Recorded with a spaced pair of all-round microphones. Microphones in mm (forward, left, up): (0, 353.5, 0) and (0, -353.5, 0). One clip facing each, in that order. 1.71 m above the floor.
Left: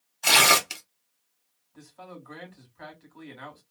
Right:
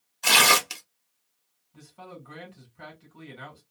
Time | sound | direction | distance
0.2 | tearing paper | centre (ahead or behind) | 0.6 m
1.7 | a man speaking | 60° right (ahead or behind) | 1.8 m